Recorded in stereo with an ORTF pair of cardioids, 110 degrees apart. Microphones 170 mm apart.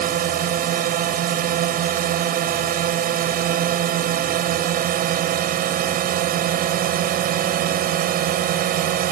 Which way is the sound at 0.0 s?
65° right.